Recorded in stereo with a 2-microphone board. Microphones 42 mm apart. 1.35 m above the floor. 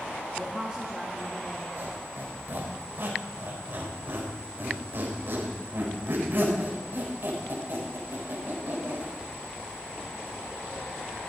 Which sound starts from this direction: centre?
A woman speaking, at 0.4 s.